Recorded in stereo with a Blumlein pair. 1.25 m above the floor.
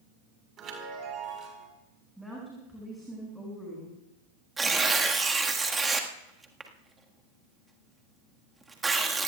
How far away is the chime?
About 4.5 m.